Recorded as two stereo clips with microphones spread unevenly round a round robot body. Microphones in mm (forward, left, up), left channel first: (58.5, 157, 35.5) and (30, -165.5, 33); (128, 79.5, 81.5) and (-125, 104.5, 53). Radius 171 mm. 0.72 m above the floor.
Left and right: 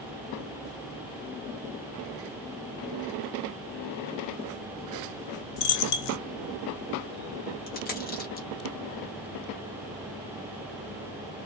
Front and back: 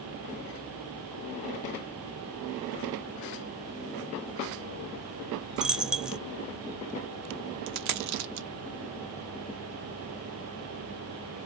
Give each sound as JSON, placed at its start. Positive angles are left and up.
{"t": 5.6, "sound": "a dropped coin", "azimuth_deg": 85, "distance_m": 0.5}
{"t": 7.7, "sound": "a dropped coin", "azimuth_deg": 150, "distance_m": 0.5}